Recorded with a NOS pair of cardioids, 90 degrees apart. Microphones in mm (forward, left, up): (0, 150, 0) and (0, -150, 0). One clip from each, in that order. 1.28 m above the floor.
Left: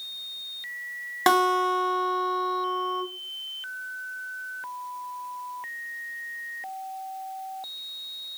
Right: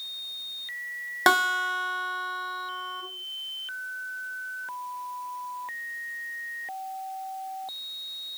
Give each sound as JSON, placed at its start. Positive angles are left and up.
{"t": 1.3, "sound": "a guitar", "azimuth_deg": -5, "distance_m": 0.9}